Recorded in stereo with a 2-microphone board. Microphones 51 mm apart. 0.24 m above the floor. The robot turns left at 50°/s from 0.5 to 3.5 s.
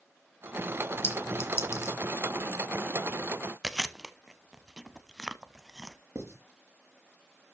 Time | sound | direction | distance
1.0 | a clink | 50° left (ahead or behind) | 2.0 m
3.6 | chewing | 5° right (ahead or behind) | 0.7 m
6.2 | writing | 70° right (ahead or behind) | 3.5 m